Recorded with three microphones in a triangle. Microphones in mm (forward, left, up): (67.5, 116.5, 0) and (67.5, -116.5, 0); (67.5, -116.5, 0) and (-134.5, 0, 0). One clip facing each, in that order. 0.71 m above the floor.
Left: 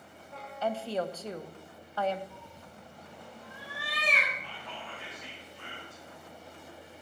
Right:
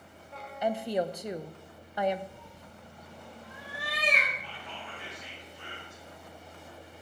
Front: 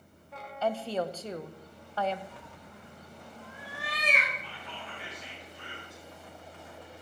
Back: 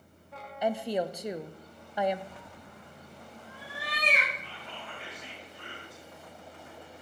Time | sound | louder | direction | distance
0.6 | a woman speaking | right 3 dB, back 1 dB | 150° right | 0.6 m
2.3 | a cat meowing | even, even | 160° right | 2.5 m
4.4 | whispering | even, even | 115° left | 6 m